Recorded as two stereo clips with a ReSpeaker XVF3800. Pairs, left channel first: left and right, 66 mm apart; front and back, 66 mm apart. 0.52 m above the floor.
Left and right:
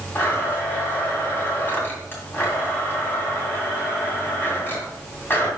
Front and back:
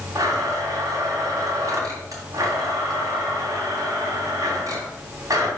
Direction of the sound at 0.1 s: 150° left.